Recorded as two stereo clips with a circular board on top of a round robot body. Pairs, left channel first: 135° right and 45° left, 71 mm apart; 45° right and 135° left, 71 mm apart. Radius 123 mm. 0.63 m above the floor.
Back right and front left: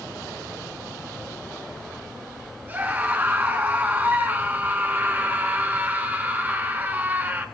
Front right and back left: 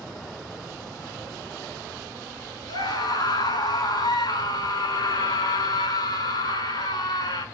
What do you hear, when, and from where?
2.7 s a scream: 20° right, 7 m